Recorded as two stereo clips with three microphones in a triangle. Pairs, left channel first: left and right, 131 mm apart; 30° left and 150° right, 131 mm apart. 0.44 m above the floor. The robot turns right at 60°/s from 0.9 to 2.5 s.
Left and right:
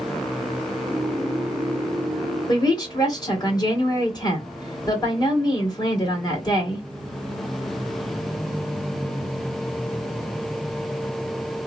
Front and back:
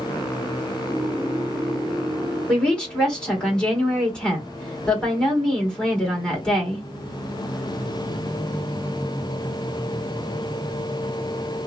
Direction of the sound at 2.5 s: 105° left.